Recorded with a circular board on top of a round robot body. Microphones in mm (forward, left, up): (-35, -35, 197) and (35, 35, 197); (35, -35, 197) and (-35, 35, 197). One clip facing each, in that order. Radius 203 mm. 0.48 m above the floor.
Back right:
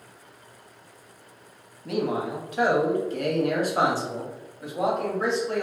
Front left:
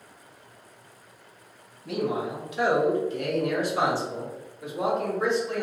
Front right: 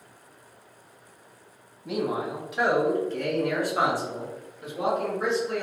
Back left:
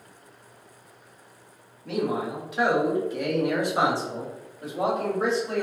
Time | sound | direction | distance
1.9 | a man speaking | 115° right | 1.6 m